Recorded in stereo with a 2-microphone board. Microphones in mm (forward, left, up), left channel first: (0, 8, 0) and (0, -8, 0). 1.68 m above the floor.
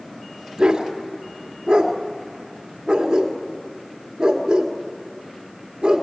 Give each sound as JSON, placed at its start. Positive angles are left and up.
{"t": 0.6, "sound": "a dog barking", "side_deg": -55, "distance_m": 1.9}